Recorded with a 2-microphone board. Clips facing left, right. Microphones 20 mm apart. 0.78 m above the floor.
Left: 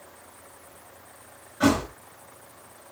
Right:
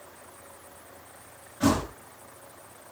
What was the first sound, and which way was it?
A thud, 35° left (ahead or behind).